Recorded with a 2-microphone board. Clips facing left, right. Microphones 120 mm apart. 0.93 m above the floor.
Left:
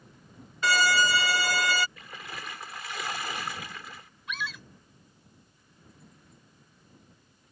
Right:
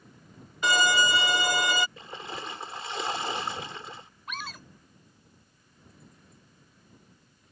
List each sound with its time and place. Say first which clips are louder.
0.6 s a violin: even; 20° right (ahead or behind)
2.0 s a splash: right 4 dB; 30° right (ahead or behind)
4.3 s a scream: left 3 dB; 45° right (ahead or behind)